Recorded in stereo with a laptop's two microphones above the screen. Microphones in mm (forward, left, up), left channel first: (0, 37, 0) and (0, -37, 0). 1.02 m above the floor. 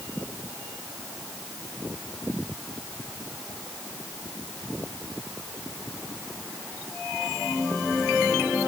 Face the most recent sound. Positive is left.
No sound to turn to.